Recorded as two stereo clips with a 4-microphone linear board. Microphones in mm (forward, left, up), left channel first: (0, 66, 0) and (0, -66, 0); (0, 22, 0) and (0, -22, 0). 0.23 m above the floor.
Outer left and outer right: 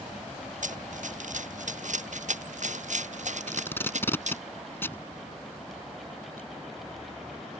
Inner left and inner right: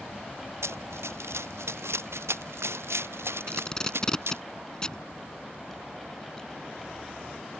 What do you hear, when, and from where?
0.6 s running footsteps: 75° right (ahead or behind); by 4.4 s 65° right (ahead or behind)
3.5 s tape being pulled: 15° left (ahead or behind)